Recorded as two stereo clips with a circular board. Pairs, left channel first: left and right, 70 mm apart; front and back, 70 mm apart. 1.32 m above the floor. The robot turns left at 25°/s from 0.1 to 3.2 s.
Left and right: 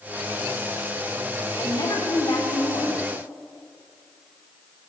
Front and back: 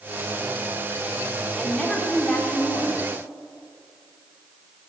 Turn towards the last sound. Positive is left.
turn(degrees=45)